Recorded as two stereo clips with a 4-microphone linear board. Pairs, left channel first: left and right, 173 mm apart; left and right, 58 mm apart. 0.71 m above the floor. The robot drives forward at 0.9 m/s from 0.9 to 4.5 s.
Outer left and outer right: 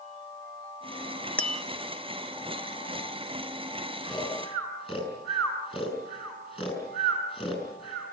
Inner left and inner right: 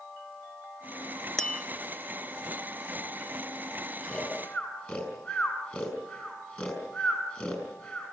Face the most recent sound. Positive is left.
turn(degrees=30)  # may be behind; listen again after turning